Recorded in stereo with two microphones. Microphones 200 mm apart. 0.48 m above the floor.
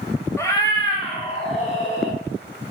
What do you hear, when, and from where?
0.4 s a cat meowing: 15° left (ahead or behind), 1.3 m; by 2.2 s 35° left (ahead or behind), 3 m